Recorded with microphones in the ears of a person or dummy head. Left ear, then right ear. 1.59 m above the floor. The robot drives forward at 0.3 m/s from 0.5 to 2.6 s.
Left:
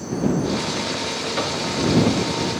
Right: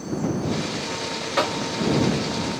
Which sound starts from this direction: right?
Knocking, at 1.4 s.